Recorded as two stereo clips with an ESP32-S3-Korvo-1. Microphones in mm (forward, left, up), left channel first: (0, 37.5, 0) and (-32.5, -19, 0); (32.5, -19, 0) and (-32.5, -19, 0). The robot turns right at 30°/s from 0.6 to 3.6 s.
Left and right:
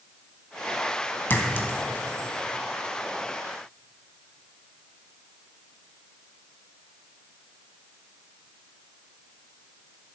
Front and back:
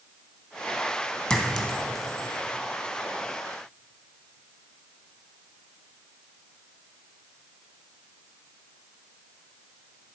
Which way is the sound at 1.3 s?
65° left.